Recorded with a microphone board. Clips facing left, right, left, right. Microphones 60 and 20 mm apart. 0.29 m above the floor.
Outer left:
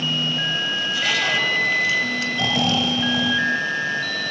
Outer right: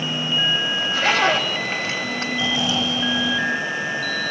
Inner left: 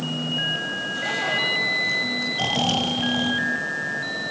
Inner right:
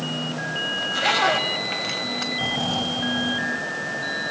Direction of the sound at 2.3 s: 60° left (ahead or behind).